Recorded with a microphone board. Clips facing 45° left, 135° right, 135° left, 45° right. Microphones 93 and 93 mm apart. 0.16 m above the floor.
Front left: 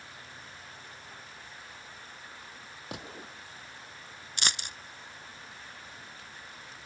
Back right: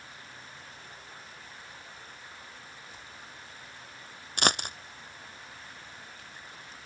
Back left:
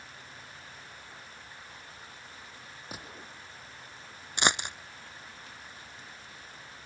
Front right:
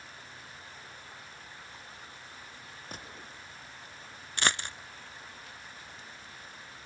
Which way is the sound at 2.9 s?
50° left.